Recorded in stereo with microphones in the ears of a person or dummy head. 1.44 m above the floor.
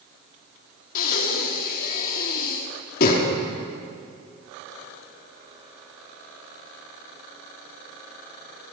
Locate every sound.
0.9 s breathing: 55° left (ahead or behind), 1.9 m